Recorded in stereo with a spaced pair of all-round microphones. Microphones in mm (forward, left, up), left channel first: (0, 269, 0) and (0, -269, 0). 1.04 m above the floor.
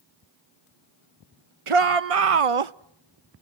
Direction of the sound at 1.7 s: 65° right (ahead or behind).